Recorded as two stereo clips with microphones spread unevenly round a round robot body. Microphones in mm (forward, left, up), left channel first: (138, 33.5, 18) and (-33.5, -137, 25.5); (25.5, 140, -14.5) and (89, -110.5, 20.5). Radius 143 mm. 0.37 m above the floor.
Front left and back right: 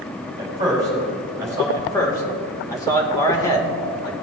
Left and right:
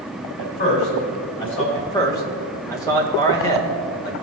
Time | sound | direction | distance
0.4 | a man speaking | 150° left | 2.5 m
1.7 | a man speaking | 85° left | 1.3 m